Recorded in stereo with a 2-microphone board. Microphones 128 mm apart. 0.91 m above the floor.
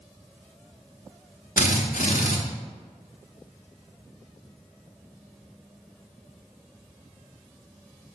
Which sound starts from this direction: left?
A drill, at 1.6 s.